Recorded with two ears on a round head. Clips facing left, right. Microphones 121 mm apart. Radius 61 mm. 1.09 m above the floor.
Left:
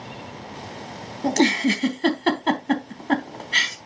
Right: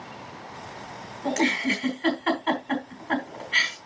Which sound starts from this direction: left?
A giggle, at 1.2 s.